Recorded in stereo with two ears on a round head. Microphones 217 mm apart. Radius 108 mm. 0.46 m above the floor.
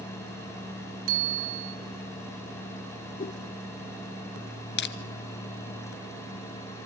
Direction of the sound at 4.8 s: 45° left (ahead or behind).